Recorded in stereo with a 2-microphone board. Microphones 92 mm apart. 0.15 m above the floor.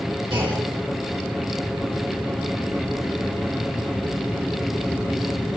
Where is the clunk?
65° right (ahead or behind), 4.5 m.